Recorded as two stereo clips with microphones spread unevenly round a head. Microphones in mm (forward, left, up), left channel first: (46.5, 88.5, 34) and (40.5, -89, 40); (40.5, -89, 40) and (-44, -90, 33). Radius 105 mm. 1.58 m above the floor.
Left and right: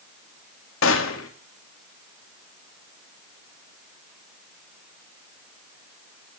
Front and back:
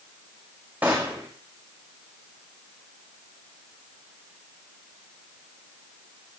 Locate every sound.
0.8 s a gunshot: 95° left, 2.0 m